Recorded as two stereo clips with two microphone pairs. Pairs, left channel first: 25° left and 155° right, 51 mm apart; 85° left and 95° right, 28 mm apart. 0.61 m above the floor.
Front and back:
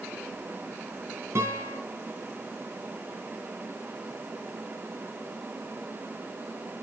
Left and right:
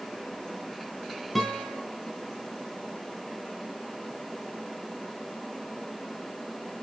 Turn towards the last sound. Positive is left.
turn(degrees=170)